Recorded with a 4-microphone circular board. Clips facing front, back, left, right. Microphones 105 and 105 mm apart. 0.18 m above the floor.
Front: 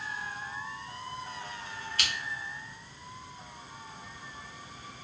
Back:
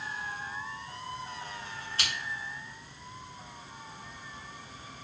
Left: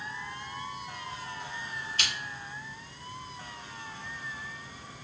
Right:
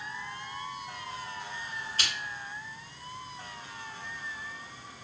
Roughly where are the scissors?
Behind right.